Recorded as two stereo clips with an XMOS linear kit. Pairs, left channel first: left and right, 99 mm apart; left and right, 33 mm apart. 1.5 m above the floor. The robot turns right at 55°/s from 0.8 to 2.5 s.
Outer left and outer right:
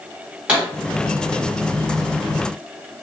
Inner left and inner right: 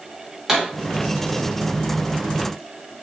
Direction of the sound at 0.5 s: 10° right (ahead or behind).